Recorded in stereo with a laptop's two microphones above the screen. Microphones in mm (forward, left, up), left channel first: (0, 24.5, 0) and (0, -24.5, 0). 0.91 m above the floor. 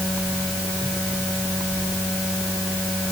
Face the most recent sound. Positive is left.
No sound to turn to.